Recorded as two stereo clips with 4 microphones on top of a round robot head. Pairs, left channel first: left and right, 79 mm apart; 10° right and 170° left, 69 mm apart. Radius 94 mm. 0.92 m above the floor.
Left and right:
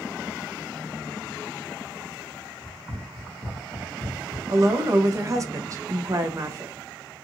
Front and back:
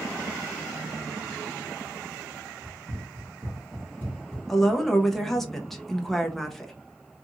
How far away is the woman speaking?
About 0.6 m.